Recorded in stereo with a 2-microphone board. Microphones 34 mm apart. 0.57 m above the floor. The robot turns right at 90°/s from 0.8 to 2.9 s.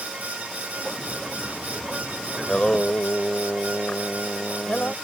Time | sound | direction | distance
2.4 | singing | 10° left | ?